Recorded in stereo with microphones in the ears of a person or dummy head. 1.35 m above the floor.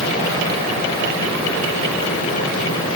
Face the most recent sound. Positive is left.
No sound to turn to.